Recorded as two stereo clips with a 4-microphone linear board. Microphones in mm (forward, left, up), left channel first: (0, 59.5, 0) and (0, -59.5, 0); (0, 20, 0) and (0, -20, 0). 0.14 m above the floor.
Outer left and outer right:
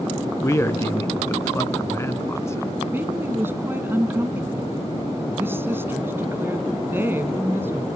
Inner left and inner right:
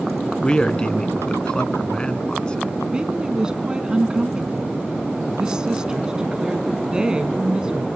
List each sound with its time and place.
0.4 s a man speaking: 20° left (ahead or behind), 1.1 m
2.9 s a woman speaking: 20° right (ahead or behind), 1.6 m